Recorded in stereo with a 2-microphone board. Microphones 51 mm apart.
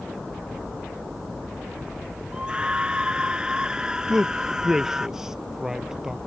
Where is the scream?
20° right (ahead or behind); by 5.1 s 10° right (ahead or behind).